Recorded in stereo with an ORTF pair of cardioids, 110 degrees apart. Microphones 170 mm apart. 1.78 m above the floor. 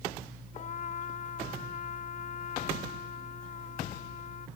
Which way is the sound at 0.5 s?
45° left.